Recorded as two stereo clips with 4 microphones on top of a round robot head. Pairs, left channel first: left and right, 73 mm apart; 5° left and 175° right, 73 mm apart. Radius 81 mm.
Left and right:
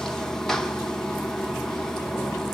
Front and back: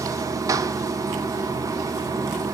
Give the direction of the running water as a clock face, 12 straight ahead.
6 o'clock.